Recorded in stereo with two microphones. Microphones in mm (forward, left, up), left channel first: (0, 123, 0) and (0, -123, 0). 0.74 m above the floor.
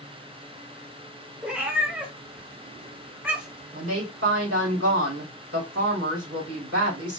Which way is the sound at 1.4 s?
5° right (ahead or behind).